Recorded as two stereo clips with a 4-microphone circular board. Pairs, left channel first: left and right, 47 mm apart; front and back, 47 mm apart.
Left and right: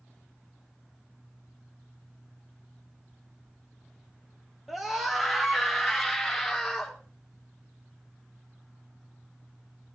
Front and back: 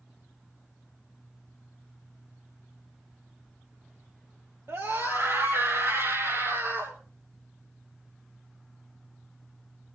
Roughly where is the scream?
Behind.